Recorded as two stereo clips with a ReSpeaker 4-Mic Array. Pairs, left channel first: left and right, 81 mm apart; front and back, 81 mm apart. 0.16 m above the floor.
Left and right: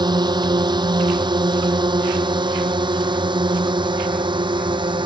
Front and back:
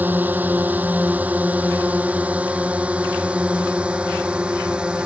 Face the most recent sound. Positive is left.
turn(degrees=-100)